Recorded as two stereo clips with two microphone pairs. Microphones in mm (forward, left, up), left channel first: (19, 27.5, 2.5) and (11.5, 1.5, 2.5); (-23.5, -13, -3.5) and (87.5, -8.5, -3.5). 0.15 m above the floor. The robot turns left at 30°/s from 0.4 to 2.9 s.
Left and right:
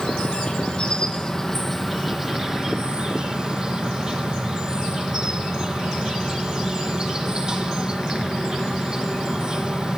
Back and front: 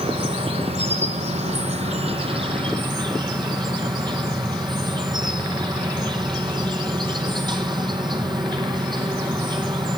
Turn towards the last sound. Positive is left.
turn(degrees=-45)